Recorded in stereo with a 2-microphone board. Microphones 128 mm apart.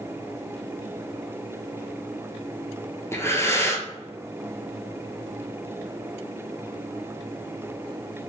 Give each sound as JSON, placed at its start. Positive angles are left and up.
{"t": 3.1, "sound": "breathing", "side_deg": 20, "distance_m": 0.9}